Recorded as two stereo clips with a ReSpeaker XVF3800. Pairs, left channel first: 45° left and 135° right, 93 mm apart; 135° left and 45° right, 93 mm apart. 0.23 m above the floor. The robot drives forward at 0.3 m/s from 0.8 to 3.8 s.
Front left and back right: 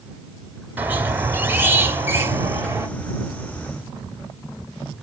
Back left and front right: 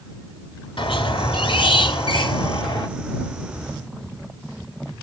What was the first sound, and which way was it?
A squeak, 155° left.